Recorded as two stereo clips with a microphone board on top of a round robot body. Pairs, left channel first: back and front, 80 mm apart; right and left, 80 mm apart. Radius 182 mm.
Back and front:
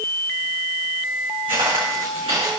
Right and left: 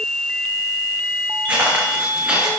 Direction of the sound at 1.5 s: 20° left.